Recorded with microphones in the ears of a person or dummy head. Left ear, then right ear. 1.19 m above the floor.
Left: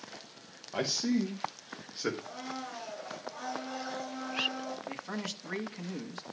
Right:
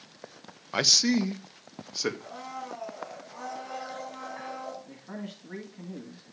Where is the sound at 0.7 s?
50° right (ahead or behind), 0.9 m; by 2.1 s 80° right, 1.6 m.